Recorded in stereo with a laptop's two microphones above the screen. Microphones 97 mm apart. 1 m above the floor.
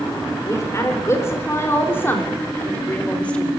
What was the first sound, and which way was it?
A woman speaking, 30° left (ahead or behind).